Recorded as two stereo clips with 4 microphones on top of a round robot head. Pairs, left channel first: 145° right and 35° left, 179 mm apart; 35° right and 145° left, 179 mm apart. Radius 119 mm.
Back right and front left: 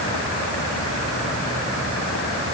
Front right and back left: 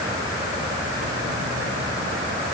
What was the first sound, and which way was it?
Only background noise.